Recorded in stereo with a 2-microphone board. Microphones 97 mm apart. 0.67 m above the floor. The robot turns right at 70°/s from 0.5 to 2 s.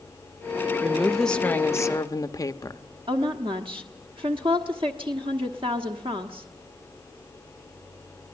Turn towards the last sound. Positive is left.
turn(degrees=-60)  # may be behind; listen again after turning